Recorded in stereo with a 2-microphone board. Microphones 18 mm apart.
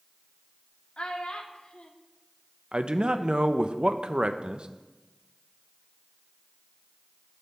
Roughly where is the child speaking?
Left.